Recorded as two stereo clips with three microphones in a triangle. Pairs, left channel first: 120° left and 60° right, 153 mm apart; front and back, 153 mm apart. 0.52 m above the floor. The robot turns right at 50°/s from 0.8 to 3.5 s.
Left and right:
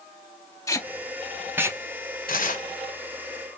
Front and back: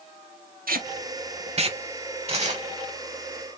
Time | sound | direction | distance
0.7 | tape being pulled | 175° right | 0.7 m
2.3 | tearing paper | 135° left | 1.1 m